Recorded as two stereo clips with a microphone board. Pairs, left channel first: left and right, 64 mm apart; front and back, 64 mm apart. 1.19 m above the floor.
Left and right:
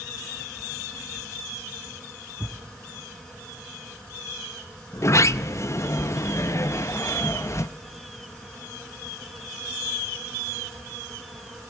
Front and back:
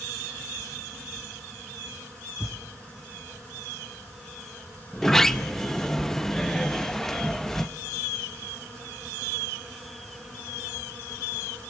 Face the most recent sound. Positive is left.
turn(degrees=80)